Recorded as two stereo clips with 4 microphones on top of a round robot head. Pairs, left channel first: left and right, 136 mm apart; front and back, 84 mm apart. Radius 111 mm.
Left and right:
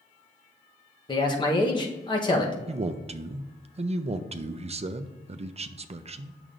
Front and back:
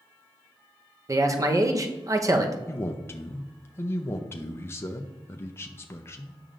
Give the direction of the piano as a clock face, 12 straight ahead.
I don't hear a piano.